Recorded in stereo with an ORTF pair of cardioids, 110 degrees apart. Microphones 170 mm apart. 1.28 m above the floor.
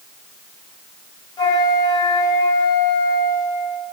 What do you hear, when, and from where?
1.4 s a flute: 25° left, 1.2 m